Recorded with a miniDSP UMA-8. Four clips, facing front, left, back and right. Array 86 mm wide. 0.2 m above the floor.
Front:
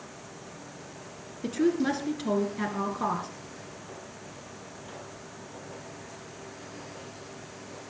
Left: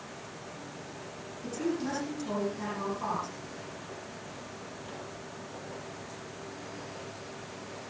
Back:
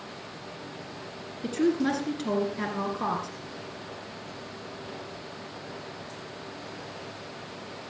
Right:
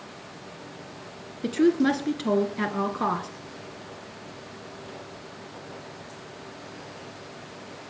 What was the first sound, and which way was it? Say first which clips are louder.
A woman speaking: right 12 dB, even; 90° right.